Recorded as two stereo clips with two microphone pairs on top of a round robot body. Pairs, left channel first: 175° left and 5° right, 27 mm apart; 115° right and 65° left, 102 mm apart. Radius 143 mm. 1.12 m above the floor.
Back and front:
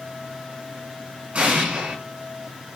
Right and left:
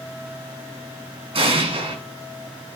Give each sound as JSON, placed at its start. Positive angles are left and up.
{"t": 1.3, "sound": "an explosion", "azimuth_deg": 45, "distance_m": 7.0}